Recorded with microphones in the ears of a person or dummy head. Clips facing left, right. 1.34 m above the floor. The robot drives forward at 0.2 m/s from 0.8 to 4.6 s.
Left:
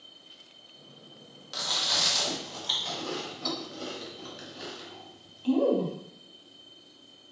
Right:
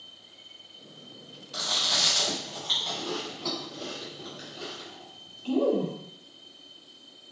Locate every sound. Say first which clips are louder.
1.5 s chewing: right 1 dB; 75° left (ahead or behind), 1.4 m; by 5.9 s 70° left (ahead or behind), 1.4 m